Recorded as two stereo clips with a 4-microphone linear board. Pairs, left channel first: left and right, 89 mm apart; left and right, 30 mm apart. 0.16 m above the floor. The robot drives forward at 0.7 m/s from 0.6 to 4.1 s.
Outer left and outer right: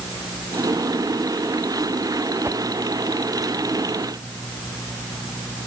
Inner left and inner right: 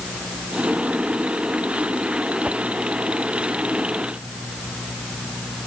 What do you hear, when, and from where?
2.4 s a whoosh: 30° right (ahead or behind)